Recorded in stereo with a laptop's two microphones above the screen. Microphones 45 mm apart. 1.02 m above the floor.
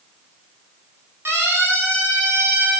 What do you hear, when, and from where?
1.2 s a siren: 70° right (ahead or behind), 8 m; by 2.8 s 75° right (ahead or behind), 6 m